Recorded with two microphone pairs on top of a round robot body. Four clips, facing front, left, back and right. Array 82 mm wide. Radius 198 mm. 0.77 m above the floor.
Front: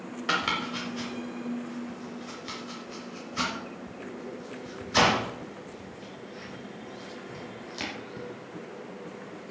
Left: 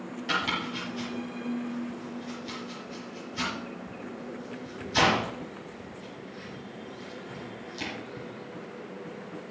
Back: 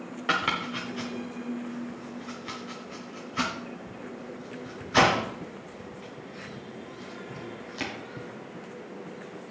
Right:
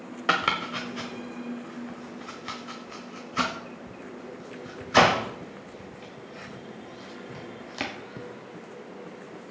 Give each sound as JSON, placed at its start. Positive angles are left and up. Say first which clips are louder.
{"t": 0.3, "sound": "chopping", "louder": "right 5 dB, back 1 dB", "azimuth_deg": -100, "distance_m": 0.8}